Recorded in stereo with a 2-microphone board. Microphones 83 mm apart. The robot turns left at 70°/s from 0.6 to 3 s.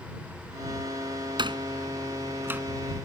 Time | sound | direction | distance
1.4 | a door slam | 70° right (ahead or behind) | ?